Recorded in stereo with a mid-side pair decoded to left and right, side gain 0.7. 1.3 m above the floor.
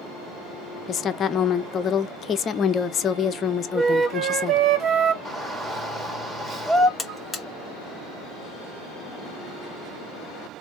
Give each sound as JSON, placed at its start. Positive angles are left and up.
{"t": 0.9, "sound": "a woman speaking", "azimuth_deg": 35, "distance_m": 0.7}
{"t": 3.7, "sound": "a flute", "azimuth_deg": -35, "distance_m": 1.4}
{"t": 5.2, "sound": "a shout", "azimuth_deg": -10, "distance_m": 2.0}
{"t": 7.0, "sound": "a buzzer", "azimuth_deg": 15, "distance_m": 0.9}